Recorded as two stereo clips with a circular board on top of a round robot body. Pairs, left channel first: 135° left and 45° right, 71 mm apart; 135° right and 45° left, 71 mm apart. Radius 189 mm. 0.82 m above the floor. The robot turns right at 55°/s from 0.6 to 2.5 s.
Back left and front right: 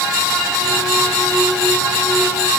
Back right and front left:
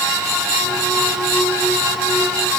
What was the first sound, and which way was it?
Only background noise.